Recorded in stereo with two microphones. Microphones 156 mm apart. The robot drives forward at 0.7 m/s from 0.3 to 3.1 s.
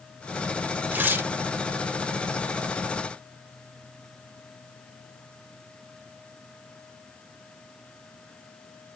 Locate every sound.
0.9 s tearing paper: 10° right (ahead or behind), 0.9 m; by 1.3 s 15° right (ahead or behind), 0.7 m